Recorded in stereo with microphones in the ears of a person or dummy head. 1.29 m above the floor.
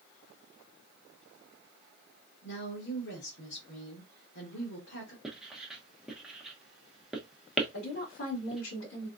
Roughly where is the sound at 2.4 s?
Left.